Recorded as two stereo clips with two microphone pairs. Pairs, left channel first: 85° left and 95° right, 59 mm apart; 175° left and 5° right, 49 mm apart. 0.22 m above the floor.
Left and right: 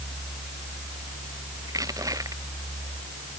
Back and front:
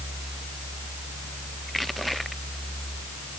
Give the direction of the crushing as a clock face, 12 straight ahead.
3 o'clock.